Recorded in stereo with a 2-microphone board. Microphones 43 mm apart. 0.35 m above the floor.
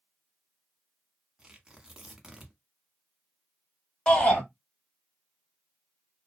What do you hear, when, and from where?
1.4 s tearing paper: 20° right (ahead or behind), 0.8 m
4.1 s a shout: 20° left (ahead or behind), 1.8 m